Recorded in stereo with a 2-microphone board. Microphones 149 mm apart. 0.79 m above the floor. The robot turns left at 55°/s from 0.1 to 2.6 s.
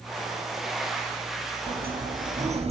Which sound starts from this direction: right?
A sliding door, at 1.7 s.